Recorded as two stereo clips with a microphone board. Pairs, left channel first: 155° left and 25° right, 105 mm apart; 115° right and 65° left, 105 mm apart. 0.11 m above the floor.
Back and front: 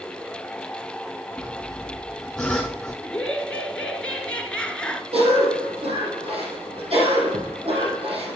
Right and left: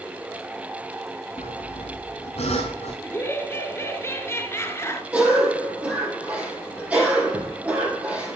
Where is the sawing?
120° right, 3 m.